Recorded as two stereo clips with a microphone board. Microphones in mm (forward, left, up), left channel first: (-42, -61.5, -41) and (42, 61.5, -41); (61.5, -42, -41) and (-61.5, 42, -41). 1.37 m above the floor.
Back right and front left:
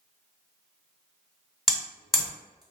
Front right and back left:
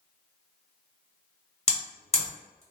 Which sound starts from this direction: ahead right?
Hammering, at 1.7 s.